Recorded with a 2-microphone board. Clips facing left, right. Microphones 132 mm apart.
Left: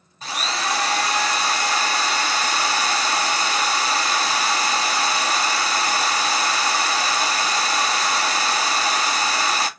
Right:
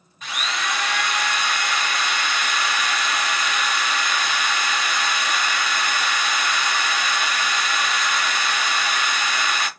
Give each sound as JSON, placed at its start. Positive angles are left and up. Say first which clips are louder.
{"t": 0.2, "sound": "a drill", "louder": "left 2 dB", "side_deg": 35, "distance_m": 0.8}